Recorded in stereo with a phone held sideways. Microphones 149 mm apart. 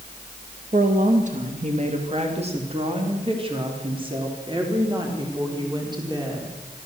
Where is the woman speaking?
60° right (ahead or behind), 1.9 m; by 6.5 s 30° right (ahead or behind), 4.5 m.